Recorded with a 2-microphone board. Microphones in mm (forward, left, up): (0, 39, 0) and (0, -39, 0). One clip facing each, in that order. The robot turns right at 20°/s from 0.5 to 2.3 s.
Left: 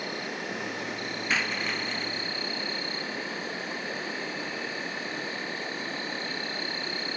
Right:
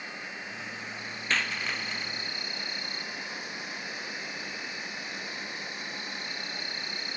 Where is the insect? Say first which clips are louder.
Left 6 dB; 105° left; by 7.2 s 140° left.